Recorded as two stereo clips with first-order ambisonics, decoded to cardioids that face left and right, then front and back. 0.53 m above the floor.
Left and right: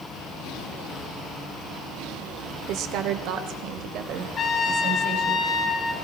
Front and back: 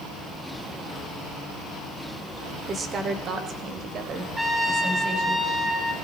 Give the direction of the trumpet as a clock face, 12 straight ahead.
9 o'clock.